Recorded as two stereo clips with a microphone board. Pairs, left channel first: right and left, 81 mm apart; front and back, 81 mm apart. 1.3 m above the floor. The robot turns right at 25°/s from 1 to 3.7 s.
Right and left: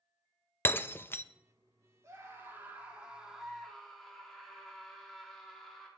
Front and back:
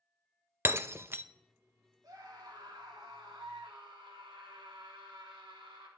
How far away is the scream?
About 3.5 m.